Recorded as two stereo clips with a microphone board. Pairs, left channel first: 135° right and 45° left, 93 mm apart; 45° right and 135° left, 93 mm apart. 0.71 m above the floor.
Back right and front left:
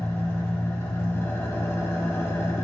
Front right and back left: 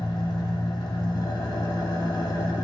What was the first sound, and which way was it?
An engine running, 75° right.